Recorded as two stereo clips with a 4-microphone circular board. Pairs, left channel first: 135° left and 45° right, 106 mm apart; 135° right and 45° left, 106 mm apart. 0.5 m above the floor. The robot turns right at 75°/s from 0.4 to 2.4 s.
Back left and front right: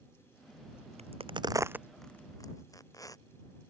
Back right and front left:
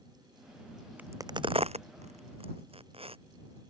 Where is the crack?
30° right; by 3.2 s 75° left.